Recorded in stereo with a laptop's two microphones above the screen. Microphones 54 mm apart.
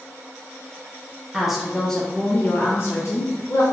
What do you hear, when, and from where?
1.3 s a woman speaking: 5° right (ahead or behind), 0.9 m; by 3.6 s 70° left (ahead or behind), 1.0 m